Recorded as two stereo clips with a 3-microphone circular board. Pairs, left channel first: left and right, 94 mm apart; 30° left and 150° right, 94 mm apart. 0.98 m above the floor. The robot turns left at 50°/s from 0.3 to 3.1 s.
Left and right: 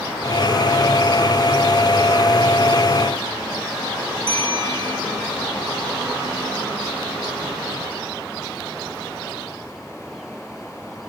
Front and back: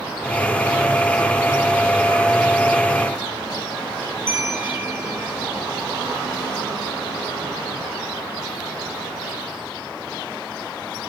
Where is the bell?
90° right, 1.4 m.